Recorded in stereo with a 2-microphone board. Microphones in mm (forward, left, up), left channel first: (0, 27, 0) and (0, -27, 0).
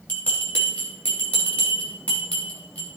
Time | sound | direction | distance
0.1 | a bell | 25° left (ahead or behind) | 3.5 m